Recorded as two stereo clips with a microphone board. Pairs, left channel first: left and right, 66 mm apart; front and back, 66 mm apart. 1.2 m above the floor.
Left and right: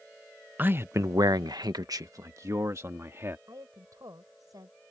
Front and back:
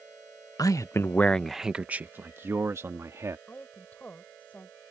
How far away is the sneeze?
No sneeze in this recording.